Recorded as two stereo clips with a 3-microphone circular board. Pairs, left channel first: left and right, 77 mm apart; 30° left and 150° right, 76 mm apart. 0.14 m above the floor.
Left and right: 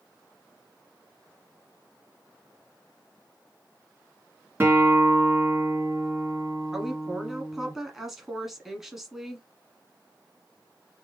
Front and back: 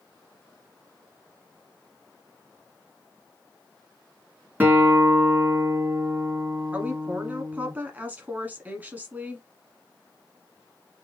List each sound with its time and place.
4.6 s a guitar: 110° right, 1.4 m
6.7 s a woman speaking: 170° right, 1.1 m